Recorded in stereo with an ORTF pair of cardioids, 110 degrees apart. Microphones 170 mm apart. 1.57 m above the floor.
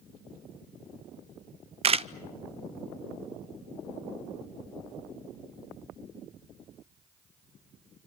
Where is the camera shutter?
35° right, 0.5 m.